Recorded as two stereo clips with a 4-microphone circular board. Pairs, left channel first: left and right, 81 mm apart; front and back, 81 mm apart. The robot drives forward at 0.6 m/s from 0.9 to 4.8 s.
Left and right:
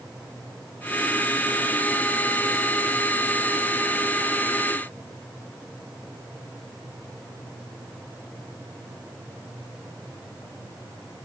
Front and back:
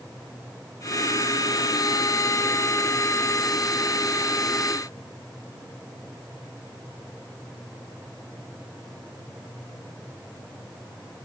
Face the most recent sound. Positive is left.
No sound to turn to.